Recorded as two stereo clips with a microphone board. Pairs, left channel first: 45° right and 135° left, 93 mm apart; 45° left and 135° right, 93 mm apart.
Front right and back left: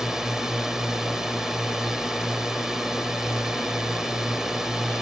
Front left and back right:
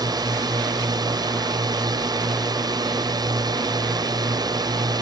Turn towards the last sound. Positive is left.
turn(degrees=-145)